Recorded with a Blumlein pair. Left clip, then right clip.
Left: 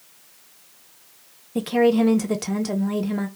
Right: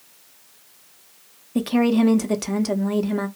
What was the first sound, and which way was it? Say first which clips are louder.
A woman speaking: left 2 dB; 5° right.